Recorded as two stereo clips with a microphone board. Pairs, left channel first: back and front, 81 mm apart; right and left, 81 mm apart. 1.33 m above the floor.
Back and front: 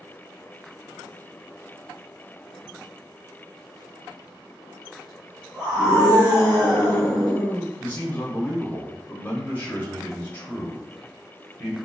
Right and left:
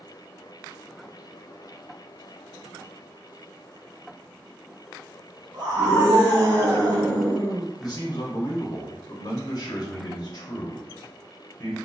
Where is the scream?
105° left, 1.2 m.